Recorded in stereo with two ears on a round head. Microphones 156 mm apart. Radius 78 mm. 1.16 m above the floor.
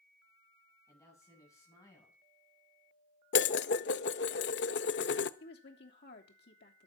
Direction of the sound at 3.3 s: 70° left (ahead or behind).